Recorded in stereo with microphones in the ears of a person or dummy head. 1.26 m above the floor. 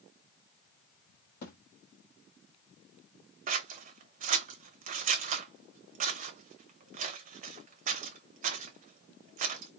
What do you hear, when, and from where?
1.4 s a thud: 35° left (ahead or behind), 0.8 m
3.5 s scissors: 35° right (ahead or behind), 0.7 m